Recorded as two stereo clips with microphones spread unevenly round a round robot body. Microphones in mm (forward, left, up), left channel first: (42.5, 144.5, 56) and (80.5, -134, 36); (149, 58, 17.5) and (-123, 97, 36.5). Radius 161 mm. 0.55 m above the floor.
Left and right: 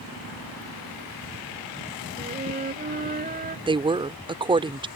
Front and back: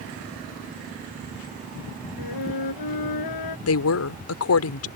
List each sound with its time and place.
2.2 s a flute: 20° right
3.7 s a woman speaking: 15° right